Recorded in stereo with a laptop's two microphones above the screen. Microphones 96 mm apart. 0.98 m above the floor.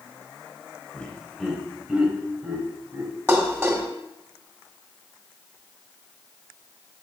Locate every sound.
0.9 s laughter: 10° left (ahead or behind), 4 m; by 3.1 s 25° right (ahead or behind), 5.5 m
3.3 s dishes clattering: 25° right (ahead or behind), 1.7 m